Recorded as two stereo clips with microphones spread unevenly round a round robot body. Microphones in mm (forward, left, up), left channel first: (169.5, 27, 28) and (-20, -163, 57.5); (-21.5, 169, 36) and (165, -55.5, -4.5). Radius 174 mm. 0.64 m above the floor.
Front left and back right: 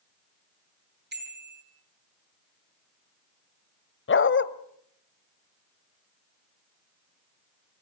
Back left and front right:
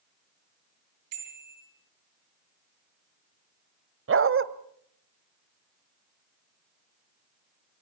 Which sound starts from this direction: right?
A bicycle bell, at 1.1 s.